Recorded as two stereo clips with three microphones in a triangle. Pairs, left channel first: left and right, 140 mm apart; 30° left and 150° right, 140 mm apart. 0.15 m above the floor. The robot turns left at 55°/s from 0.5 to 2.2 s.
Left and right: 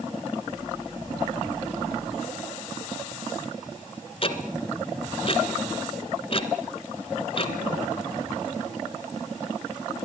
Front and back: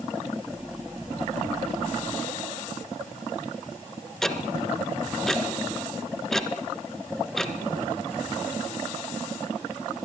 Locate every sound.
4.2 s ticking: 115° left, 1.8 m